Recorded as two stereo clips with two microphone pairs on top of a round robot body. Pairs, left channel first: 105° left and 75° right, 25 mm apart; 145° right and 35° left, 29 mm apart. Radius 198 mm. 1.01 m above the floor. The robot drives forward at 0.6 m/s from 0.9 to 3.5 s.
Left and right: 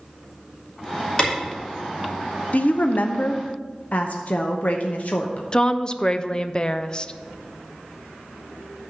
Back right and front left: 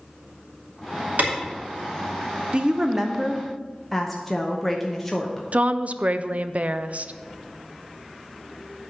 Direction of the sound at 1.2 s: 35° left.